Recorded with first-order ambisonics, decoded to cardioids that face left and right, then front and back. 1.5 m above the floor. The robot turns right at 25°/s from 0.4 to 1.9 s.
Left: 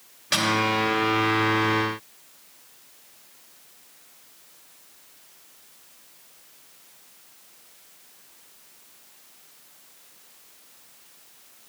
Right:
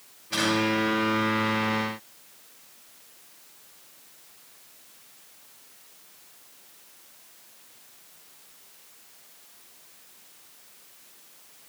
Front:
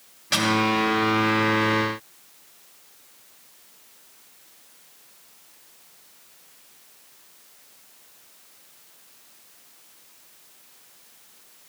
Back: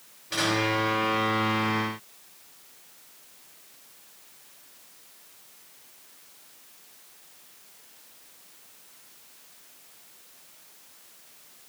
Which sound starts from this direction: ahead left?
A snare drum, at 0.3 s.